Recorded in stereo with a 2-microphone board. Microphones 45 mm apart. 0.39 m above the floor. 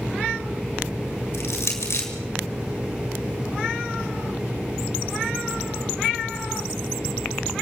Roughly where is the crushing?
Left.